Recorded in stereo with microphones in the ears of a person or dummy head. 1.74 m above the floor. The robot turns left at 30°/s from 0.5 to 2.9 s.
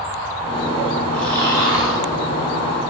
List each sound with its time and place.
1.1 s snoring: 20° right (ahead or behind), 2 m; by 2.0 s centre (ahead or behind), 2 m